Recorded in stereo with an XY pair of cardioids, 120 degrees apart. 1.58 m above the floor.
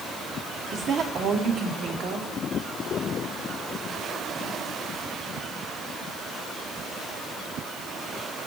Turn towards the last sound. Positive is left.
turn(degrees=-50)